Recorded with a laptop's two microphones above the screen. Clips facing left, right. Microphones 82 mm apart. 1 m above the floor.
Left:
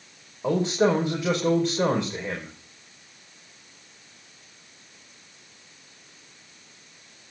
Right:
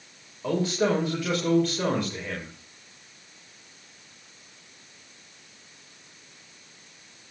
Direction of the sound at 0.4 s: 20° left (ahead or behind).